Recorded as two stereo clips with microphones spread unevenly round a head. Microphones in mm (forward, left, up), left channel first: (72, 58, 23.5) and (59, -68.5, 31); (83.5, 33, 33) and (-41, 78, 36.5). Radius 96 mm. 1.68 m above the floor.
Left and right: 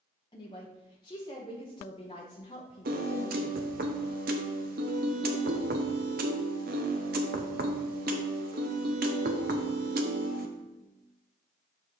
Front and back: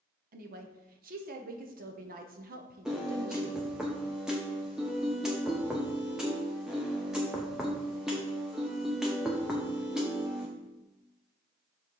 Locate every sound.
0.3 s a woman speaking: 150° left, 1.1 m
2.9 s a piano: 115° right, 0.7 m